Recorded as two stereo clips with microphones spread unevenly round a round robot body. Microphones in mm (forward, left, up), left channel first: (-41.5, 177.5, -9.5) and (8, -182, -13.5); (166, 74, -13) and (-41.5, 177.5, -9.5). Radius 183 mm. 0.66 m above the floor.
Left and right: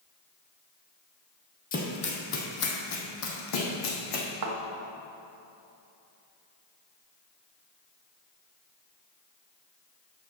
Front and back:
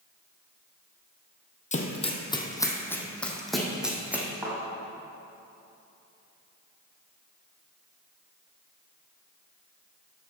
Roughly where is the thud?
Behind right.